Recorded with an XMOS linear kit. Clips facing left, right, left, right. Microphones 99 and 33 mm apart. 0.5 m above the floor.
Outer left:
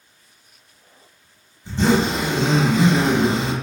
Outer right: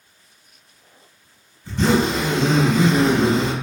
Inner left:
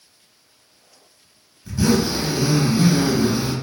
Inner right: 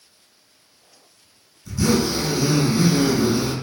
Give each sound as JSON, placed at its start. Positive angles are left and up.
{"t": 1.6, "sound": "a zipper", "side_deg": 25, "distance_m": 0.8}